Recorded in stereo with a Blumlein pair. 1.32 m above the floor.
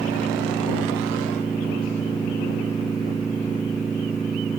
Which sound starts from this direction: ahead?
A machine running, at 0.0 s.